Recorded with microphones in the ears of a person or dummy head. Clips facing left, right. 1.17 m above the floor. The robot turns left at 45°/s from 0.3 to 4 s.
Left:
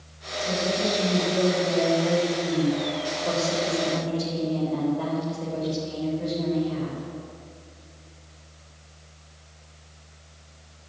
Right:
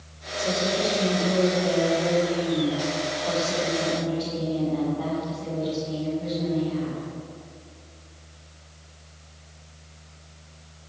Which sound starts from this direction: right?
A woman speaking, at 0.4 s.